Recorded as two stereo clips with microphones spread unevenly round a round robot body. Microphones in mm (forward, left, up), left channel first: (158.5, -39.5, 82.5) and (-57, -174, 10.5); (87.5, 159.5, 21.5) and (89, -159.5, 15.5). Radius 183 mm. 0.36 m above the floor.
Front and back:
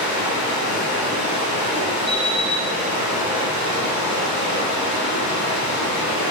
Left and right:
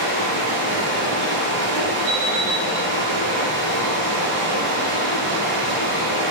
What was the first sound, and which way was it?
Running water, 35° left.